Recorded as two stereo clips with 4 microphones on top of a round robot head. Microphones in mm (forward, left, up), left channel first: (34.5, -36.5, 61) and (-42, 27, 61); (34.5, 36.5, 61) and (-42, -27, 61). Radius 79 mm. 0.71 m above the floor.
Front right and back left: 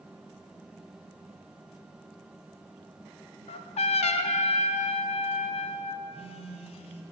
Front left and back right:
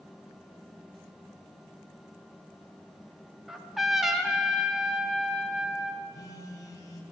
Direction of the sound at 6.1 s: 20° right.